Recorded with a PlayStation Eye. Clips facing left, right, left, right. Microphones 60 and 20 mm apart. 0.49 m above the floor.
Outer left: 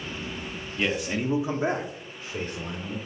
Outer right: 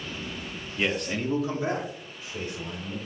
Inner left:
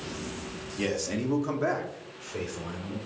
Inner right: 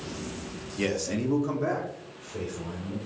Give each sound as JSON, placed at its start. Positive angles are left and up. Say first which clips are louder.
{"t": 0.8, "sound": "a man speaking", "louder": "outer left 1 dB, inner right 1 dB", "side_deg": -5, "distance_m": 0.9}